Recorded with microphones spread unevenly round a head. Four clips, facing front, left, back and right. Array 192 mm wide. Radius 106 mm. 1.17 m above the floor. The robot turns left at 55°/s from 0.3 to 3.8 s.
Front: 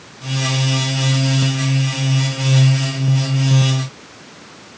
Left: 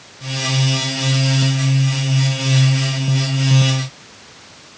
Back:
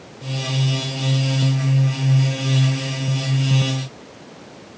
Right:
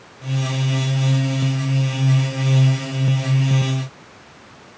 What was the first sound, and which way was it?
Only background noise.